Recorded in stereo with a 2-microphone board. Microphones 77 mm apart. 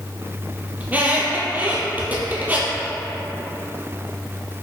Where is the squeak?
25° right (ahead or behind), 0.7 m.